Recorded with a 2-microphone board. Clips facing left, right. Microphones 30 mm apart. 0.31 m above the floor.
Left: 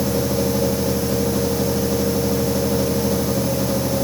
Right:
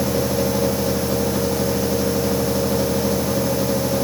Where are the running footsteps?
No running footsteps in this recording.